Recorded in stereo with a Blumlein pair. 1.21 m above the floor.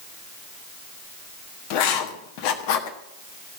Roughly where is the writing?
Ahead left.